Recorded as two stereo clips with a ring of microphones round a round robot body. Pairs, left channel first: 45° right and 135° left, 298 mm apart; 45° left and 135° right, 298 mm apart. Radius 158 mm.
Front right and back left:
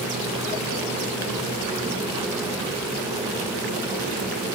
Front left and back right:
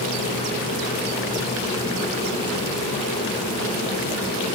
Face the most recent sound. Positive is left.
No sound to turn to.